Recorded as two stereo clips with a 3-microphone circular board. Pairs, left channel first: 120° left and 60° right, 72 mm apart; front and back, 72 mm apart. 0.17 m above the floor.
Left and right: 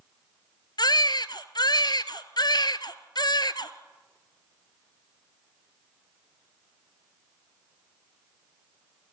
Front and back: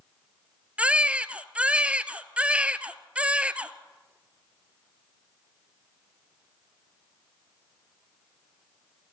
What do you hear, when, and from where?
0.8 s a baby crying: 105° left, 0.9 m